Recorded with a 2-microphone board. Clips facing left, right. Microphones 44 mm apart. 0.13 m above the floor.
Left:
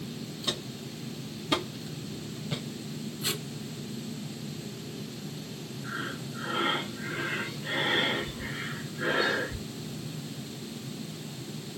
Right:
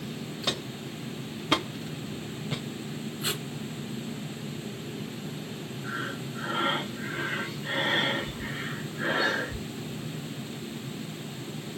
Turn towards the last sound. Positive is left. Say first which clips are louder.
# right 2 dB
turn(degrees=-10)  # may be behind; listen again after turning